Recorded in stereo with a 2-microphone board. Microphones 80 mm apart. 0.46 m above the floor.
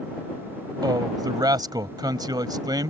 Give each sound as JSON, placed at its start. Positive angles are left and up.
{"t": 0.8, "sound": "a man speaking", "side_deg": -60}